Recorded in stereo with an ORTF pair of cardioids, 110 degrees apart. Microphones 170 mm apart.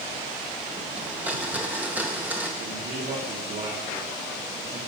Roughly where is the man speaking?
Ahead right.